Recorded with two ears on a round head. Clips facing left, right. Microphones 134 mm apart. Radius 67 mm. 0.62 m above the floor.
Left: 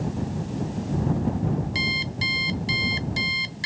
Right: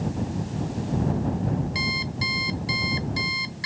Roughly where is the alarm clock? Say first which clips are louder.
Even; left.